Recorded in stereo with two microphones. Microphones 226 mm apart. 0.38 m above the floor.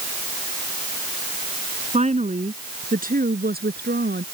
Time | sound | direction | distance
1.9 | a woman speaking | 30° right (ahead or behind) | ?